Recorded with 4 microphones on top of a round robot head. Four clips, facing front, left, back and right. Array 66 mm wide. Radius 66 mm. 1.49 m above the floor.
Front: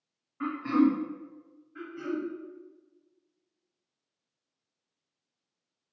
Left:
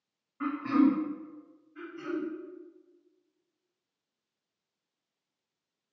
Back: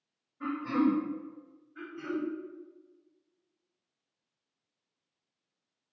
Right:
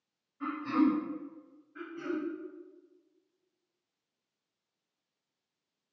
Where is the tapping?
I don't hear tapping.